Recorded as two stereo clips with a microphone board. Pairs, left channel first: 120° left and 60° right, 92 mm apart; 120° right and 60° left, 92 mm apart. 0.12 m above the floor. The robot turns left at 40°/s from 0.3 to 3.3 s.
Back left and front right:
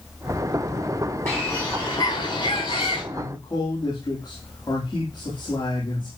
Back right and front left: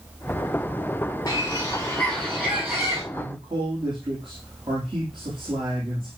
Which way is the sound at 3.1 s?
85° left.